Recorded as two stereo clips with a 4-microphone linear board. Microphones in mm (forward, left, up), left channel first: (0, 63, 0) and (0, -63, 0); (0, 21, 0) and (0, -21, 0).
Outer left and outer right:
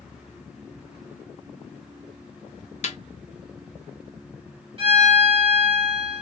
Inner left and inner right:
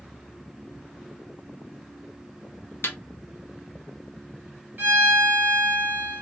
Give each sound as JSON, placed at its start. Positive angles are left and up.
{"t": 2.8, "sound": "a snare drum", "side_deg": 60, "distance_m": 0.6}
{"t": 4.8, "sound": "a violin", "side_deg": -45, "distance_m": 1.5}